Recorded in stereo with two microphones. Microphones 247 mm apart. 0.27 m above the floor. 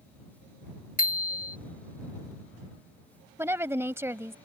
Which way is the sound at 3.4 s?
10° right (ahead or behind).